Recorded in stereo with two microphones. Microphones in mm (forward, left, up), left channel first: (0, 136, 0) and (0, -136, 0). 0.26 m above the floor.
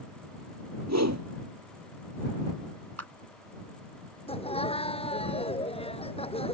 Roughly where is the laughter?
Left.